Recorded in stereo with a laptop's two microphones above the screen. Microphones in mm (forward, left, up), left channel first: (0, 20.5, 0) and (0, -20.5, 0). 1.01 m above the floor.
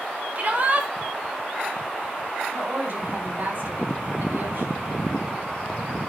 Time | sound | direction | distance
0.3 | a shout | 35° right (ahead or behind) | 1.6 m
2.5 | a woman speaking | 55° right (ahead or behind) | 3 m